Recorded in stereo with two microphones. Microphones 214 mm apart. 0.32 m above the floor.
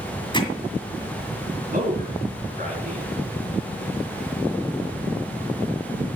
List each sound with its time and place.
0.3 s hammering: 20° left (ahead or behind), 2 m
1.7 s a man speaking: 40° right (ahead or behind), 4 m